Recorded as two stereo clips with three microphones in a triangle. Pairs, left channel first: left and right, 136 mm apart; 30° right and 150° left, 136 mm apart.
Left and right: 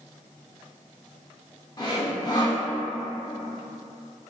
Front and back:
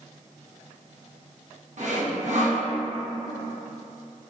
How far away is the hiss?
No hiss in this recording.